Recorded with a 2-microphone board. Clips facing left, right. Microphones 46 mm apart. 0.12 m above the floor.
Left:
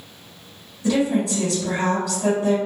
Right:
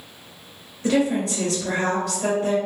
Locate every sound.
0.8 s a woman speaking: 45° right (ahead or behind), 1.6 m